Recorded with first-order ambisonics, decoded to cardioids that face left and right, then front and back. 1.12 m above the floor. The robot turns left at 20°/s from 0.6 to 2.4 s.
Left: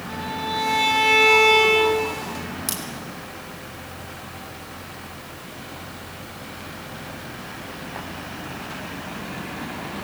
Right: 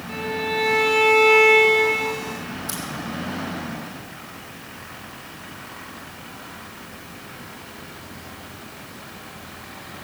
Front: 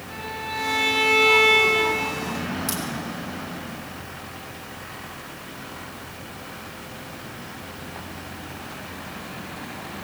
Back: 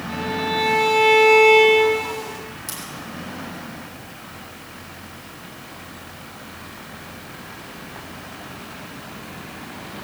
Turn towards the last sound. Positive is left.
turn(degrees=85)